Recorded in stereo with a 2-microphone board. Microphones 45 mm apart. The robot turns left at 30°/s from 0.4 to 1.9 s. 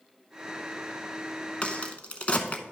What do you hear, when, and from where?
1.6 s a crack: 30° left (ahead or behind), 0.8 m; by 2.6 s 35° left (ahead or behind), 0.8 m